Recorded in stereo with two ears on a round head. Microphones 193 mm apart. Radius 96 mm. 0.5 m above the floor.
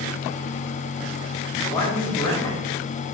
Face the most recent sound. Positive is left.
turn(degrees=15)  # may be behind; listen again after turning